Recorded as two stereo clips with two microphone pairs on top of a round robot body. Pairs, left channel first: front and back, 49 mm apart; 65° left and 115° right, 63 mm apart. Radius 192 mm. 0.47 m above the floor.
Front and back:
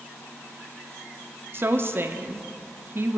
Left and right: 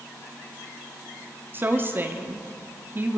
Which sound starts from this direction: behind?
A woman speaking, at 1.5 s.